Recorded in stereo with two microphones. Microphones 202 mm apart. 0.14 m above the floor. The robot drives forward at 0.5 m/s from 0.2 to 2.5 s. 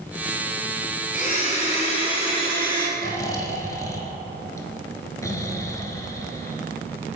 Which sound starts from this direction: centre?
Snoring, at 3.0 s.